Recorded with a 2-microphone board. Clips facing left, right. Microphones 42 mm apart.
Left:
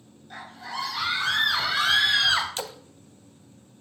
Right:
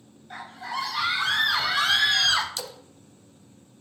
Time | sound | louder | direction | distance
0.3 | a scream | right 3 dB | 15° right (ahead or behind) | 3.5 m
2.6 | a splash | left 3 dB | 40° left (ahead or behind) | 0.8 m